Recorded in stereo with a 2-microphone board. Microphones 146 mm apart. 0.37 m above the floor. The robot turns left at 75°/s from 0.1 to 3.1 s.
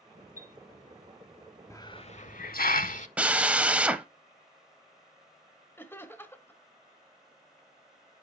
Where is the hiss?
160° left, 0.6 m; by 3.1 s 55° left, 0.6 m.